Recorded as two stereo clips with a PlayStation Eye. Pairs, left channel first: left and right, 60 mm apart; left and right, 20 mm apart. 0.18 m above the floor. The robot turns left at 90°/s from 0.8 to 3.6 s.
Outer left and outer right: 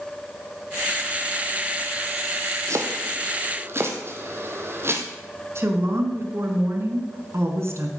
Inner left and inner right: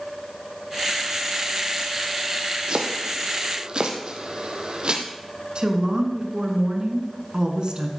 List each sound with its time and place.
2.7 s chopping: 50° right (ahead or behind), 1.8 m; by 5.0 s 45° right (ahead or behind), 1.8 m
5.5 s a woman speaking: 50° right (ahead or behind), 2.0 m